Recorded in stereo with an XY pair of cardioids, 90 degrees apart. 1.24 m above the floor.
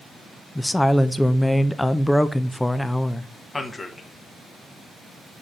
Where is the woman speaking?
10° left, 0.5 m.